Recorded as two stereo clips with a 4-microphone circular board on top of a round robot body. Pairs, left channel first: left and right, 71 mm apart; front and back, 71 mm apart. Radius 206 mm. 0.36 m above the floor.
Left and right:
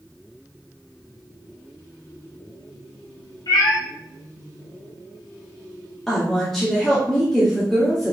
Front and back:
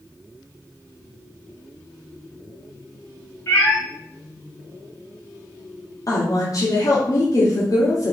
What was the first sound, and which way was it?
A cat meowing, 60° left.